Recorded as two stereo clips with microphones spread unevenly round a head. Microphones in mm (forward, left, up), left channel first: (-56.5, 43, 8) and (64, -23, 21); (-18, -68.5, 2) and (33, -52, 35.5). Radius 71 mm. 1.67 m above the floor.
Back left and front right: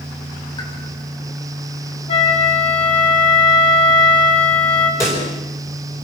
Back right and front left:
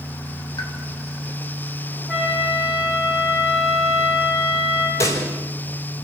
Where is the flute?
95° left, 5.5 m.